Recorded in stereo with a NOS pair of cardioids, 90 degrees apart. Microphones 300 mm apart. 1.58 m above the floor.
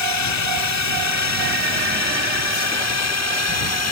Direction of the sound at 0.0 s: 70° left.